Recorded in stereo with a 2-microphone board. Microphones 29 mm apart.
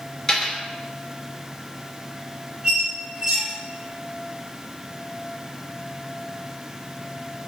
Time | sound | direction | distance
0.3 | a dropped coin | 15° left (ahead or behind) | 1.5 m
2.6 | a squeak | 30° right (ahead or behind) | 1.3 m